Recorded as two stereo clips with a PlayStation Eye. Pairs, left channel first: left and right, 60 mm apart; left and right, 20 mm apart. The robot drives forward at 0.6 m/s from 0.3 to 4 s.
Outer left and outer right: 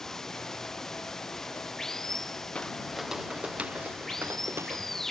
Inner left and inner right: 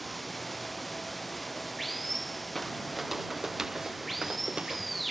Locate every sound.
0.0 s running water: 5° left (ahead or behind)
2.5 s footsteps: 20° left (ahead or behind); by 5.0 s 55° right (ahead or behind)